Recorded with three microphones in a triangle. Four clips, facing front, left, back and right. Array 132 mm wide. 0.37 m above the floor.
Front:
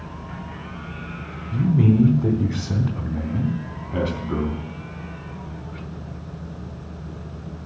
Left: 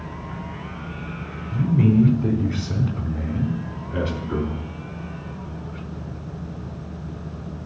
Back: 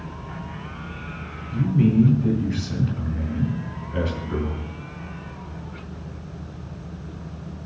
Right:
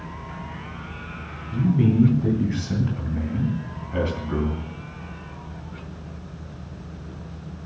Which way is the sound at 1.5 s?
10° left.